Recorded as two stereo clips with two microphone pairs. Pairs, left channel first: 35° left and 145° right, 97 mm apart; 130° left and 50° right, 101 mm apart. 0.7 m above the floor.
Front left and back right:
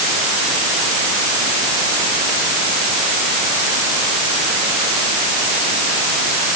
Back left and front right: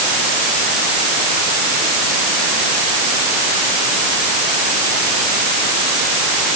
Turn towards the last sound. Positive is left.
No sound to turn to.